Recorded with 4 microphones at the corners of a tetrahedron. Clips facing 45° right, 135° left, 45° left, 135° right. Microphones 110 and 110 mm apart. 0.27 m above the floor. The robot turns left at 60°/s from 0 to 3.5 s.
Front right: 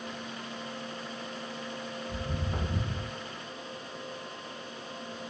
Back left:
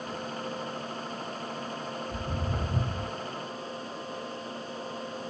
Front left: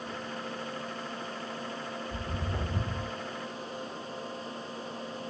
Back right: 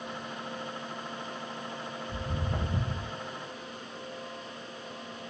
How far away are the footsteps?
About 1.7 m.